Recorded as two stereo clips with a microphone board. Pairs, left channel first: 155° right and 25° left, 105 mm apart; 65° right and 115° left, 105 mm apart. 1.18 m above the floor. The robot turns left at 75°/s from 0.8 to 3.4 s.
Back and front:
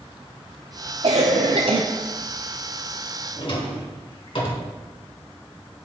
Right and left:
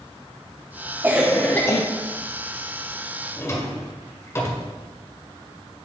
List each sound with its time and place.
1.0 s a cough: 45° left, 0.5 m; by 1.8 s 15° right, 0.5 m
3.4 s a drawer: 125° right, 1.6 m; by 4.7 s 130° right, 1.6 m